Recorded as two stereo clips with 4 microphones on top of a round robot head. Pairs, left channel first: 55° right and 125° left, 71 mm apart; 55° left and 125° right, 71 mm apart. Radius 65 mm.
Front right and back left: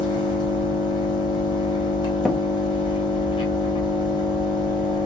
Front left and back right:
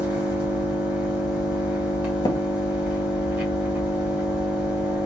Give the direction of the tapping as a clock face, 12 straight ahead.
11 o'clock.